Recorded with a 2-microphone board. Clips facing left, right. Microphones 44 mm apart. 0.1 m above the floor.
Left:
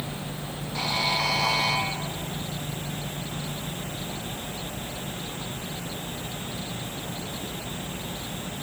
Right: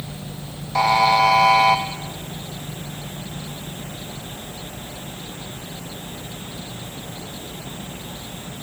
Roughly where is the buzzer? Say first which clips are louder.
Right 12 dB; right.